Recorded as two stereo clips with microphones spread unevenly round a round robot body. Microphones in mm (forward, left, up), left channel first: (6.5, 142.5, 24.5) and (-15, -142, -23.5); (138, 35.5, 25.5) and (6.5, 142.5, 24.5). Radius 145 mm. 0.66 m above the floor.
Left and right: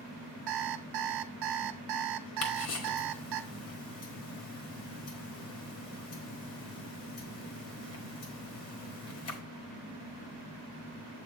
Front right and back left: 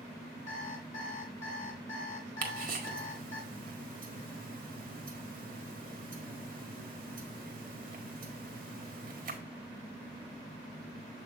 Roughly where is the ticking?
Behind left.